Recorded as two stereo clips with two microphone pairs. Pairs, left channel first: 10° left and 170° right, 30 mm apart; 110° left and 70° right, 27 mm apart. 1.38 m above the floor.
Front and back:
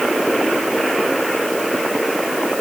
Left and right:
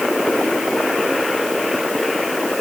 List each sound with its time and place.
Only background noise.